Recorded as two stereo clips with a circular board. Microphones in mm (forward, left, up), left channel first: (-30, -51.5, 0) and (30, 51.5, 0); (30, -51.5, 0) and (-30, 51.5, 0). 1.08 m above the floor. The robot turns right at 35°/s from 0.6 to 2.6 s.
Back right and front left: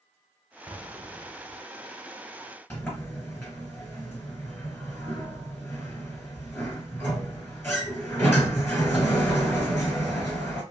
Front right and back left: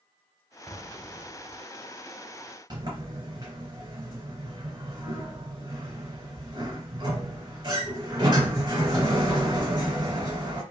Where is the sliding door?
170° left, 2.5 m.